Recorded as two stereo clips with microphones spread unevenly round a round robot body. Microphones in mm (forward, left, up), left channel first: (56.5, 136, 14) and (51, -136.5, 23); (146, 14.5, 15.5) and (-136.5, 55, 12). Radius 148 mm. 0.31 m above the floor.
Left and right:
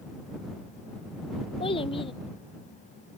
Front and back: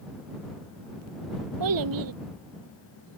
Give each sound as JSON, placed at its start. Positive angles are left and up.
{"t": 1.6, "sound": "a child speaking", "azimuth_deg": 165}